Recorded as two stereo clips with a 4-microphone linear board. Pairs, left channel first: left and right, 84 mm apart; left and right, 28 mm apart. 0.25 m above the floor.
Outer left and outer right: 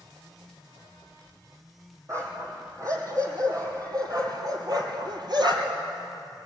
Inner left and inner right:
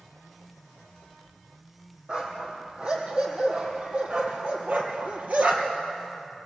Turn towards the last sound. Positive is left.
turn(degrees=-65)  # may be behind; listen again after turning